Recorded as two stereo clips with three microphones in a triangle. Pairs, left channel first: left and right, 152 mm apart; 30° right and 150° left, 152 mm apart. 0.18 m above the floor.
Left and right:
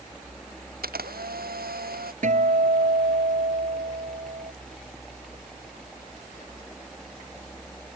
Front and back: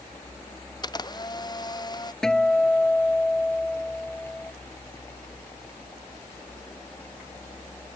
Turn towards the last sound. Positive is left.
turn(degrees=-115)